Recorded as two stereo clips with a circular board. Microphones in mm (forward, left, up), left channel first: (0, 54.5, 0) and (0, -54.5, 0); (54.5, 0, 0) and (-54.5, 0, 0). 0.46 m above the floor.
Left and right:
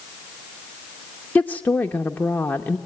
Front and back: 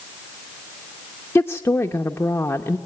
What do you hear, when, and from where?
1.4 s a woman speaking: 35° left, 0.8 m